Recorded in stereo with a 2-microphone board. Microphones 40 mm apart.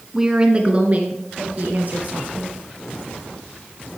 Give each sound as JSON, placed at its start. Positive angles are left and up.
{"t": 0.1, "sound": "a woman speaking", "side_deg": -15, "distance_m": 1.0}